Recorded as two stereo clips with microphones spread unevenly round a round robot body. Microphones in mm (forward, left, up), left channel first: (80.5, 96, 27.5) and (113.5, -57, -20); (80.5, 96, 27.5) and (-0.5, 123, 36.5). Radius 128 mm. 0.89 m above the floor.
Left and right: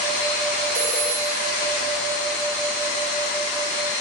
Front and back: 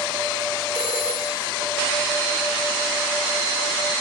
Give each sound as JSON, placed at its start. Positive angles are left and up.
{"t": 0.8, "sound": "a phone ringing", "azimuth_deg": -140, "distance_m": 2.5}